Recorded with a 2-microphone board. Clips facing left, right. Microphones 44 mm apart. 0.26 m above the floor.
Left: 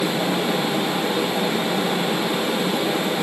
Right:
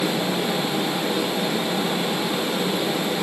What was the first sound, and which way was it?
Only background noise.